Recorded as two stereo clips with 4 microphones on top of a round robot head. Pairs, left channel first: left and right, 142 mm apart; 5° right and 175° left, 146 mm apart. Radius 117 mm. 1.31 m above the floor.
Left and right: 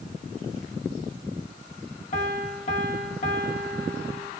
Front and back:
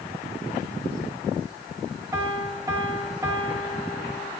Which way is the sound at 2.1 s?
110° left.